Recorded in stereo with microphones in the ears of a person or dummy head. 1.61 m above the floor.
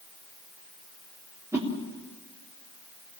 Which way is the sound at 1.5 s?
10° right (ahead or behind).